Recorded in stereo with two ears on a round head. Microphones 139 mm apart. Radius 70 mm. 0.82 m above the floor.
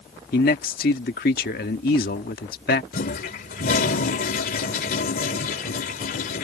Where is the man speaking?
65° left (ahead or behind).